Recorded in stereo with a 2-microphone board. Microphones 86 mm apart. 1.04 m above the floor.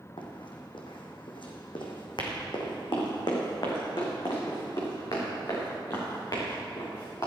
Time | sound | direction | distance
0.2 | running footsteps | 70° left (ahead or behind) | 2.5 m